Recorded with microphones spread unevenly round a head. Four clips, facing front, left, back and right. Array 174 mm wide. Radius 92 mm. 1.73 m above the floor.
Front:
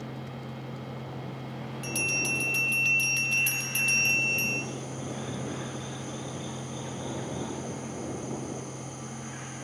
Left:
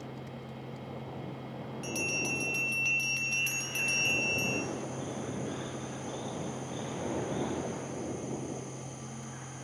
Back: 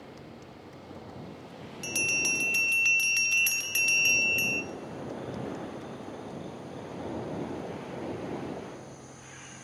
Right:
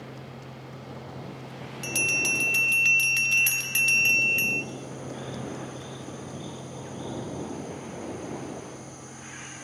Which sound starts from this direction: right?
A bell, at 1.8 s.